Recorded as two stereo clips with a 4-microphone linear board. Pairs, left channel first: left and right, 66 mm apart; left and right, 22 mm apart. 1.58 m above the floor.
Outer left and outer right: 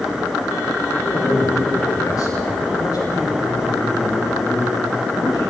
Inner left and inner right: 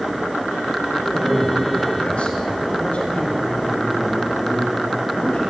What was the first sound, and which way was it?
A man speaking, 45° left (ahead or behind).